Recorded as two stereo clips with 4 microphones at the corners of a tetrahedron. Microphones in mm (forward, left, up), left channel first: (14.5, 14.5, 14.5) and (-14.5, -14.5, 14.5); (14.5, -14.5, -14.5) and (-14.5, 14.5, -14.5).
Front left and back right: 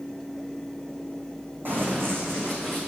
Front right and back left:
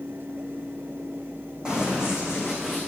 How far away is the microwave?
No microwave in this recording.